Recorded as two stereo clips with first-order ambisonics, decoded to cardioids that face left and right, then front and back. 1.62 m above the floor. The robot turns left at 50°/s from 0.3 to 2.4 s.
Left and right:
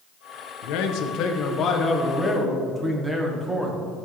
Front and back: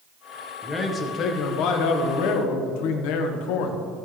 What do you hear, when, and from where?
0.6 s a man speaking: 85° left, 1.3 m; by 3.8 s 5° right, 1.3 m